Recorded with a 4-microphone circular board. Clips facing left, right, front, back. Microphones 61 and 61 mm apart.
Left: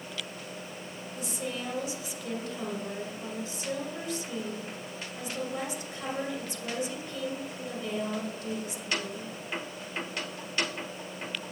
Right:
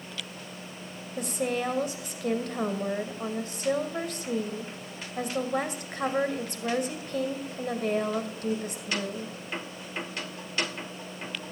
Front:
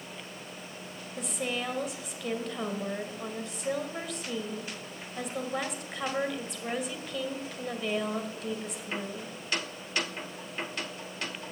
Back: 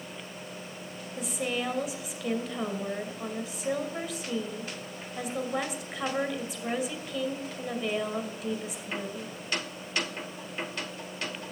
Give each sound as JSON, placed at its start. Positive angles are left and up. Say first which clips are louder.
{"t": 1.2, "sound": "a woman speaking", "louder": "right 7 dB, back 2 dB", "azimuth_deg": -95, "distance_m": 2.0}